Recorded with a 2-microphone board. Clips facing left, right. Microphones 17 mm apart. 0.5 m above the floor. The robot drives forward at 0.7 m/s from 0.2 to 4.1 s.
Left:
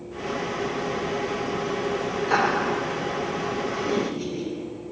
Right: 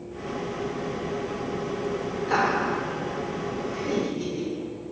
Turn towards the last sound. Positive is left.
turn(degrees=5)  # may be behind; listen again after turning